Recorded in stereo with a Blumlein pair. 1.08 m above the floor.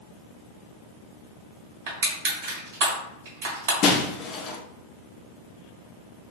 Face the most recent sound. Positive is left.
turn(degrees=35)